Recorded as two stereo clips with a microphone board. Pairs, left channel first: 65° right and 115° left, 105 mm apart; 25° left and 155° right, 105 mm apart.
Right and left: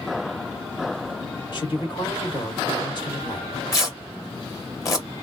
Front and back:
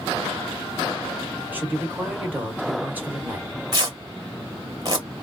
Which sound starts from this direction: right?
A man speaking, at 1.5 s.